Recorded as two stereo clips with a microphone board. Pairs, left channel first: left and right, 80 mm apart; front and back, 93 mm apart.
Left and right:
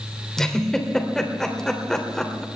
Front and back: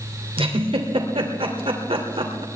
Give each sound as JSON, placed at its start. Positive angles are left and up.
{"t": 0.4, "sound": "a giggle", "azimuth_deg": 170, "distance_m": 2.5}